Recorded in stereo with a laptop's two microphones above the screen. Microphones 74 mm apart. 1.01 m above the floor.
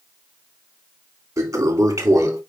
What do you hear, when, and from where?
1.4 s a toilet flushing: 50° right (ahead or behind), 3 m